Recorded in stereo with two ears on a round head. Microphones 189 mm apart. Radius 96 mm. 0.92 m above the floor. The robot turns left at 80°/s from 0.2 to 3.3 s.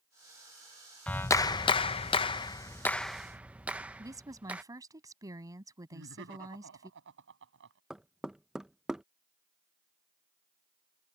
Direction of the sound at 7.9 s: Centre (ahead or behind).